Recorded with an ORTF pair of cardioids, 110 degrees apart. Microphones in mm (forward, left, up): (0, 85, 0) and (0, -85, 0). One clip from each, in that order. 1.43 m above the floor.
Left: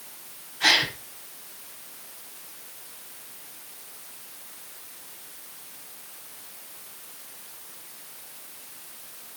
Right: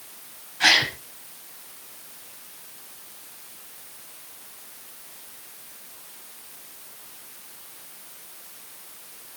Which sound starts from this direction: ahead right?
A gasp, at 0.6 s.